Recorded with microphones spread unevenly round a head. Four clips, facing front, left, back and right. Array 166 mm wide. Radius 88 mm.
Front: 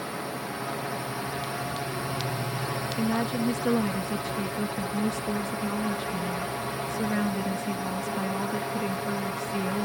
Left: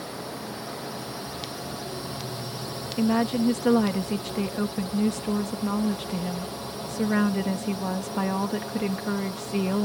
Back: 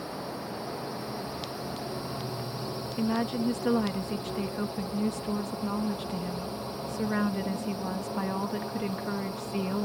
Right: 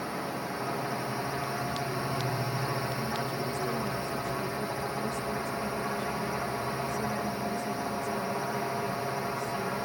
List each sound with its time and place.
0.0 s a drone: 45° right
3.0 s a woman speaking: 75° left